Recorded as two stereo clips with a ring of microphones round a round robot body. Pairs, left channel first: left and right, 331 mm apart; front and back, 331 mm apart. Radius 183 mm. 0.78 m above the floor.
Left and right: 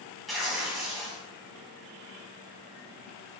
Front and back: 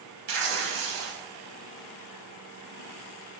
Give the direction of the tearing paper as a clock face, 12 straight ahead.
6 o'clock.